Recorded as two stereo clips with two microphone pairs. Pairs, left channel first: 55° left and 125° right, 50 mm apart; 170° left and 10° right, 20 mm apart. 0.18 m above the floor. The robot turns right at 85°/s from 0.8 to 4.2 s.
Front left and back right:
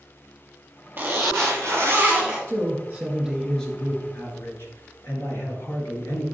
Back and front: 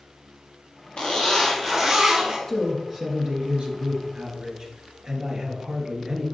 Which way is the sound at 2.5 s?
120° right.